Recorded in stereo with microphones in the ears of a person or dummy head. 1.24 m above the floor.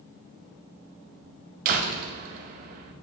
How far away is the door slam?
About 0.6 m.